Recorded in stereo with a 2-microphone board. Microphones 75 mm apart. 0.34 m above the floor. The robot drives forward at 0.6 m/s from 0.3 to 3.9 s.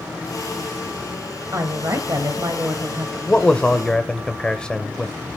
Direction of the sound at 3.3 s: 15° left (ahead or behind).